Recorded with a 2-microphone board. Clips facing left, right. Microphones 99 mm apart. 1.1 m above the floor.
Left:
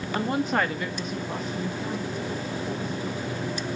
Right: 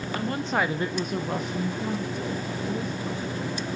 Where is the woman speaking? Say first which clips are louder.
Left 2 dB; 30° left (ahead or behind), 1.1 m; by 3.7 s 70° right (ahead or behind), 5 m.